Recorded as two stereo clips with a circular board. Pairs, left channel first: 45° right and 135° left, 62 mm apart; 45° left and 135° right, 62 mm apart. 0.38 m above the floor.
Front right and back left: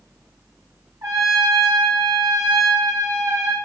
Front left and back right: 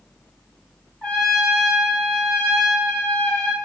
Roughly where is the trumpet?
Behind left.